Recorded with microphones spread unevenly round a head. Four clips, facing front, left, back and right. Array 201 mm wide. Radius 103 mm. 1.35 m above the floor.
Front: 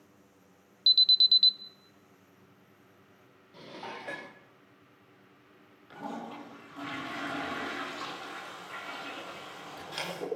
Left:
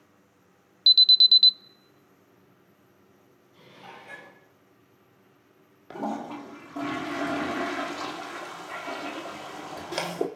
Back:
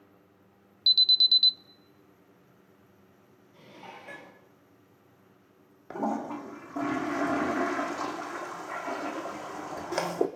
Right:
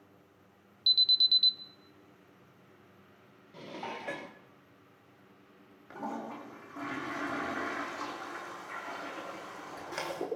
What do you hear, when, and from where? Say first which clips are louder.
0.9 s an alarm: left 8 dB, back 1 dB; 140° left, 0.6 m
3.5 s dishes clattering: right 7 dB, front 5 dB; 65° right, 2.5 m
5.9 s a toilet flushing: left 7 dB, back 9 dB; 145° left, 3 m